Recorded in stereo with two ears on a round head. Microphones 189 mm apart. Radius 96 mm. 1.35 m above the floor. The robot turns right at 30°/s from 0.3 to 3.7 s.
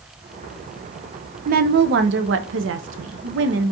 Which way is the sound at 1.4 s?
130° right.